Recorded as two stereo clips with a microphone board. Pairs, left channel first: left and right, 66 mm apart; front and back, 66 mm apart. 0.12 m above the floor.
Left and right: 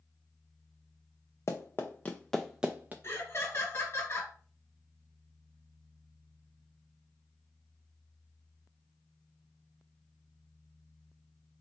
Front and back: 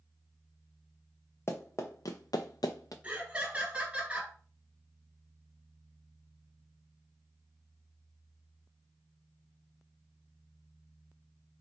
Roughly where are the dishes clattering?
No dishes clattering in this recording.